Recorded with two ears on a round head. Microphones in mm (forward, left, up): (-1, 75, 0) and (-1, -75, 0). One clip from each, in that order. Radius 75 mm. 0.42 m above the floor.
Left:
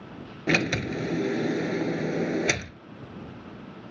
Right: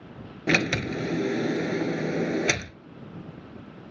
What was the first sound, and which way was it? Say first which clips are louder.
A sliding door: right 1 dB; 5° right (ahead or behind).